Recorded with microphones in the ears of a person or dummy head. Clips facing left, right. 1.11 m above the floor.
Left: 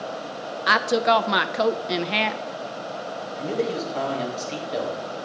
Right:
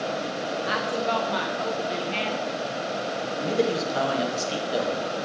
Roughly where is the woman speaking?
Left.